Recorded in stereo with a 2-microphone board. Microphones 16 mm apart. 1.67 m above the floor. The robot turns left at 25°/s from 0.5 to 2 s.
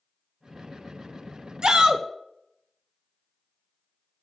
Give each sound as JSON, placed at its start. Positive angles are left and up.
{"t": 1.6, "sound": "a shout", "side_deg": -45, "distance_m": 0.8}